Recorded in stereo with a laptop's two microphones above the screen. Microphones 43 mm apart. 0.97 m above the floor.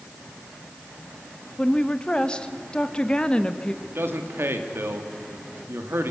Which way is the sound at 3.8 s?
70° right (ahead or behind).